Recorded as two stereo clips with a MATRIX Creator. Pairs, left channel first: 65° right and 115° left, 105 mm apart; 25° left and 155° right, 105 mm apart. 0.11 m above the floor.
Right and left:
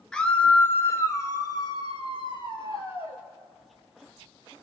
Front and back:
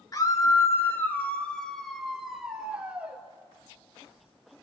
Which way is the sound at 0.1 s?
10° left.